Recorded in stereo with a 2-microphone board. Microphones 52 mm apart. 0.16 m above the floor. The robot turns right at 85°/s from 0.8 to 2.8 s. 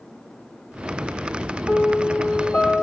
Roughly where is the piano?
Ahead left.